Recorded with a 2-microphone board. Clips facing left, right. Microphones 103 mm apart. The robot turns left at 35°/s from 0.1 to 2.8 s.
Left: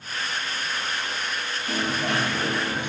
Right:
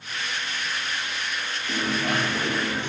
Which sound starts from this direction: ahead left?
A dropped coin, at 1.7 s.